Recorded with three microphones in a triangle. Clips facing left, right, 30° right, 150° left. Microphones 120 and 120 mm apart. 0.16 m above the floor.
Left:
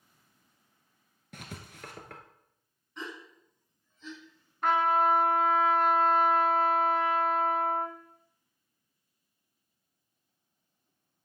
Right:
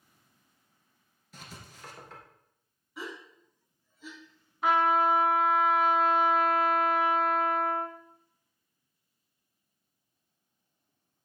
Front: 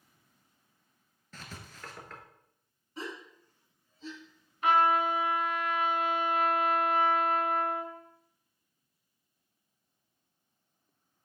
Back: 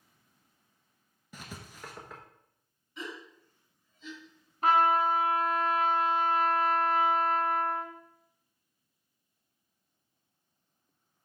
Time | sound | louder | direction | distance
1.3 | writing | left 3 dB, back 2 dB | 75° left | 1.0 m
3.0 | a gasp | right 1 dB, front 1 dB | 15° right | 1.1 m
4.6 | a trumpet | right 1 dB, back 1 dB | straight behind | 1.1 m